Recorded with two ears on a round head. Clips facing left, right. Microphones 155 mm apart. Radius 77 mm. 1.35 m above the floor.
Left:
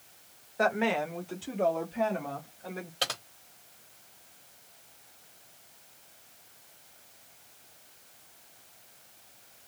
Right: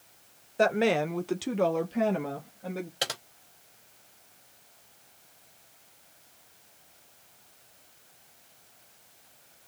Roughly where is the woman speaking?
Right.